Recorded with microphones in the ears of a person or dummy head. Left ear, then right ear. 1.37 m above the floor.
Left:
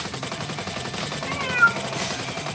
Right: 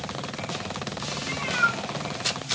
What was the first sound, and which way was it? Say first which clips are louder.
A cat meowing: left 5 dB; 15° left (ahead or behind).